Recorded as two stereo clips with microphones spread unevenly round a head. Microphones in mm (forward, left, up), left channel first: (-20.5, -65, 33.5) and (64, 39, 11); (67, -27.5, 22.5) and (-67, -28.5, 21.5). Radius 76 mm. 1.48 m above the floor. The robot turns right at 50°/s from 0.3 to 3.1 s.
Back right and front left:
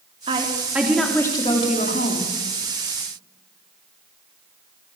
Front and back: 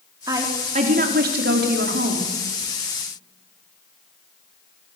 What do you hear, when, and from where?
0.3 s a woman speaking: 110° left, 4 m; by 2.3 s 150° right, 4 m